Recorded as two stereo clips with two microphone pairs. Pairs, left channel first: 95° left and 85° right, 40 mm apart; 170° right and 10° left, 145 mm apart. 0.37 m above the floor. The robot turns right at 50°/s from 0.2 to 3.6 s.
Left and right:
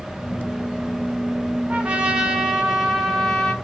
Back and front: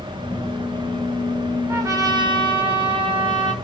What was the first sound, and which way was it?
A trumpet, 50° right.